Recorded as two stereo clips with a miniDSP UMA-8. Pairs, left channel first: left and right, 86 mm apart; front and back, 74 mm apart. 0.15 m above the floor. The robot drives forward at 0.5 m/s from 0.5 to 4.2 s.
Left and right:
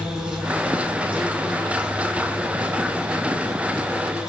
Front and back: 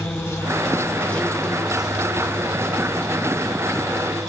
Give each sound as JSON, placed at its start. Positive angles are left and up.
{"t": 0.0, "sound": "an insect", "azimuth_deg": -15, "distance_m": 1.0}